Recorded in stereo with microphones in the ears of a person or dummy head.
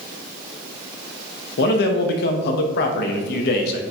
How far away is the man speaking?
About 0.5 m.